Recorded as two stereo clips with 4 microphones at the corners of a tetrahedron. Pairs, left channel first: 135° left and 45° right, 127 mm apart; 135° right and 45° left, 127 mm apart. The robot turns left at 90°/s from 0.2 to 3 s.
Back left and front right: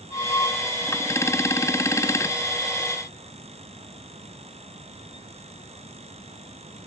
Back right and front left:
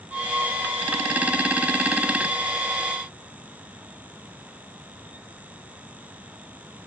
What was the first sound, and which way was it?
Only background noise.